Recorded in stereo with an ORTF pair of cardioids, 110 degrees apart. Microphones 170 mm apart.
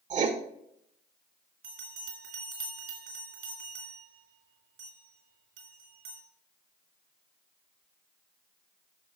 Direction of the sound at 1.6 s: 65° right.